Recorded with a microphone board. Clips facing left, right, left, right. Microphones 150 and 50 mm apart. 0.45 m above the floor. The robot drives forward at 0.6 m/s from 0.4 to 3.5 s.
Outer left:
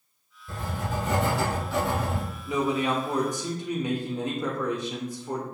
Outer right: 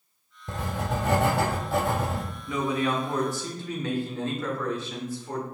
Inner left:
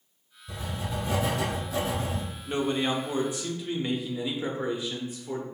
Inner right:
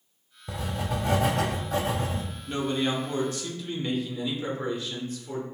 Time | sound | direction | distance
0.5 | writing | 80° right | 0.9 m
2.5 | a man speaking | 20° left (ahead or behind) | 0.7 m